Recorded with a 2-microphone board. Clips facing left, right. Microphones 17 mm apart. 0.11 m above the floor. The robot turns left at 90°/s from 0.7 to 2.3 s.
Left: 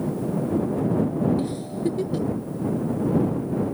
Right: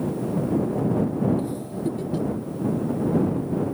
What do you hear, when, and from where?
1.4 s a giggle: 35° left (ahead or behind); by 2.3 s 5° left (ahead or behind)